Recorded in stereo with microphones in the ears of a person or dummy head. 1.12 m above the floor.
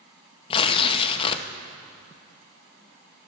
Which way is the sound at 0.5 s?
30° left (ahead or behind).